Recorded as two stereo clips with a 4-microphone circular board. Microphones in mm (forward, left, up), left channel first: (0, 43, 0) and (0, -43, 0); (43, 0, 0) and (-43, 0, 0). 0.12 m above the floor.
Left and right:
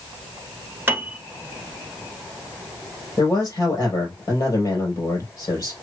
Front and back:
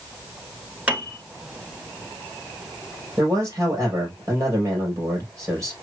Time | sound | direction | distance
0.9 | a piano | 125° right | 1.2 m
3.2 | a man speaking | 130° left | 3.5 m